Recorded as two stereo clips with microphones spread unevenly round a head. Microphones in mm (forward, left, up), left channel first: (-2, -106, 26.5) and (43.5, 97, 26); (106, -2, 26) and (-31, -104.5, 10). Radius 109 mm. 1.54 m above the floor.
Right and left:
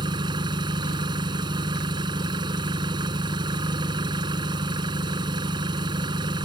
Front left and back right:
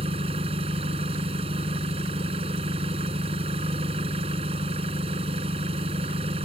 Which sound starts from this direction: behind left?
An engine running, at 0.0 s.